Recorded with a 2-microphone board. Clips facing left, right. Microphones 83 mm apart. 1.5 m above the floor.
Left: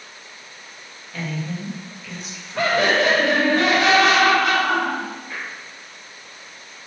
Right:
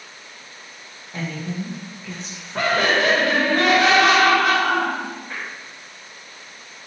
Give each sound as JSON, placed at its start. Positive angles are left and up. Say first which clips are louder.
{"t": 1.1, "sound": "a woman speaking", "louder": "even", "side_deg": -25, "distance_m": 1.0}
{"t": 2.5, "sound": "laughter", "louder": "left 1 dB", "side_deg": -60, "distance_m": 1.4}